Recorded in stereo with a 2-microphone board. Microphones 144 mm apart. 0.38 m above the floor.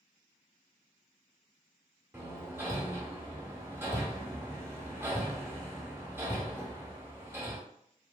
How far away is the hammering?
About 0.8 m.